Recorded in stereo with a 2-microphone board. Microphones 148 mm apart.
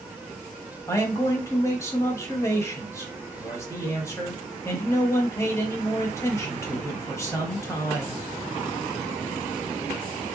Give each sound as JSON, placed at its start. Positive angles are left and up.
{"t": 0.9, "sound": "a man speaking", "side_deg": 20, "distance_m": 1.0}